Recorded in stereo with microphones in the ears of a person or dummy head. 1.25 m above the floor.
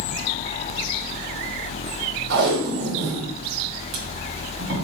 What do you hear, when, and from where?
2.3 s tape being pulled: 65° right (ahead or behind), 1.3 m